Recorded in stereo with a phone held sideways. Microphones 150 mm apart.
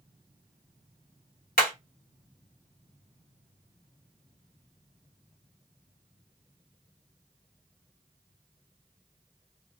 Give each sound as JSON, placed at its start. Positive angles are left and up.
{"t": 1.6, "sound": "hammering", "side_deg": 75, "distance_m": 1.5}